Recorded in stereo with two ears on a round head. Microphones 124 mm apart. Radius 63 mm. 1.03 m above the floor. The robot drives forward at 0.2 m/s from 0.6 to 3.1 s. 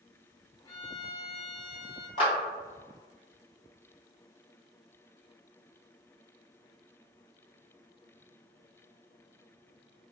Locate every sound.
0.7 s a violin: 45° left (ahead or behind), 1.8 m; by 2.1 s 50° left (ahead or behind), 1.6 m
2.2 s a clap: 45° left (ahead or behind), 1.2 m